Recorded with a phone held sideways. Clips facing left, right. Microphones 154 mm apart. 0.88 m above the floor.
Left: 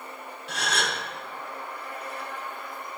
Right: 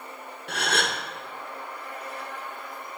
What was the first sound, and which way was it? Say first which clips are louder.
A gasp: right 2 dB; 65° right (ahead or behind).